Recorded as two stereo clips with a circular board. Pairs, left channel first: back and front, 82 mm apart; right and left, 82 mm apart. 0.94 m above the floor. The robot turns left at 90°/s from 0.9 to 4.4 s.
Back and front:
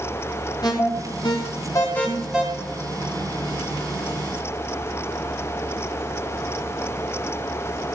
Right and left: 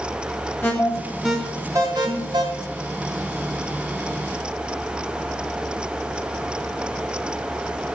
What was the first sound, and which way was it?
An alarm, 150° right.